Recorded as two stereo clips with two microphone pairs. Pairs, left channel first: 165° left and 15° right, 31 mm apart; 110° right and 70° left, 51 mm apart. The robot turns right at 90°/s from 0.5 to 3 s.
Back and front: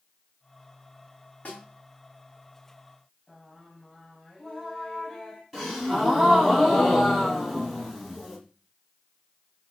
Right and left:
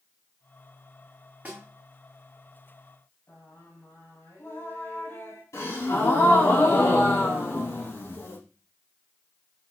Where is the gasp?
95° right, 4 m.